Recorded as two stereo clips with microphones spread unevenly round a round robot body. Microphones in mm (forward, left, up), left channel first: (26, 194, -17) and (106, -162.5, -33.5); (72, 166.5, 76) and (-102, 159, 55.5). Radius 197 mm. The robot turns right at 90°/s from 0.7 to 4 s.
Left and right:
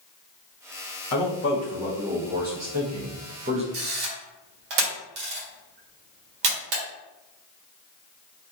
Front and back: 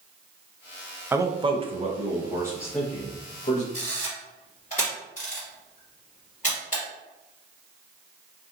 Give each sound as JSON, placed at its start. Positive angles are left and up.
{"t": 1.1, "sound": "a man speaking", "azimuth_deg": 115, "distance_m": 0.6}
{"t": 3.7, "sound": "a camera shutter", "azimuth_deg": -85, "distance_m": 1.0}